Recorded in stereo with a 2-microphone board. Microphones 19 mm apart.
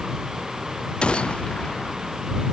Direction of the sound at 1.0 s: 65° left (ahead or behind).